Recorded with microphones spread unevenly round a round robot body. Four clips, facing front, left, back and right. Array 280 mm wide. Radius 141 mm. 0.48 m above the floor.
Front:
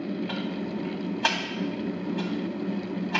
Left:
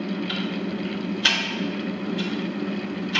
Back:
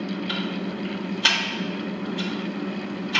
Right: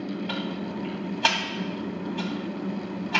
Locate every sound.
0.3 s ticking: 75° right, 1.6 m